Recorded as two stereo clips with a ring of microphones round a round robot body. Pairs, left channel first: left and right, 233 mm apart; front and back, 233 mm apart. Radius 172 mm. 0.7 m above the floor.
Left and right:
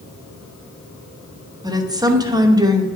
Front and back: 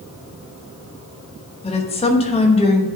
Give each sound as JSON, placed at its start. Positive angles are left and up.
{"t": 1.6, "sound": "a woman speaking", "azimuth_deg": -30, "distance_m": 1.1}